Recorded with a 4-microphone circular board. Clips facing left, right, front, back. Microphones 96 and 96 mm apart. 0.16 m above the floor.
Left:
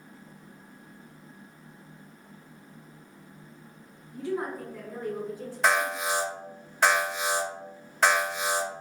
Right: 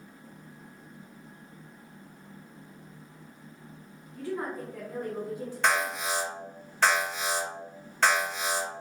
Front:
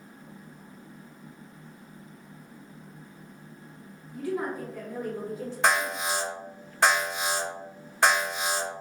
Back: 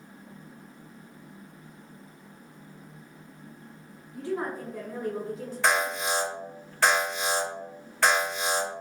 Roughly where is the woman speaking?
Behind left.